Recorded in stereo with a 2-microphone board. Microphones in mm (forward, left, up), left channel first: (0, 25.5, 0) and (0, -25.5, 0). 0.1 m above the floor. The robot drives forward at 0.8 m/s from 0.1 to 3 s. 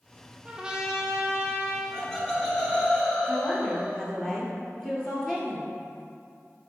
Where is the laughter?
10° left (ahead or behind), 1.5 m; by 4.0 s 5° left (ahead or behind), 1.9 m.